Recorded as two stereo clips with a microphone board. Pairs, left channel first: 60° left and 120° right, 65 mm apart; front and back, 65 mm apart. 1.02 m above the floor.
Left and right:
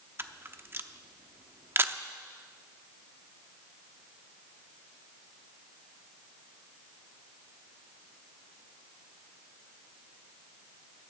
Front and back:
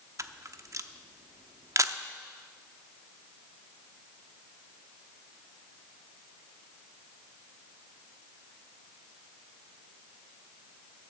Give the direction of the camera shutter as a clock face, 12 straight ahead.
5 o'clock.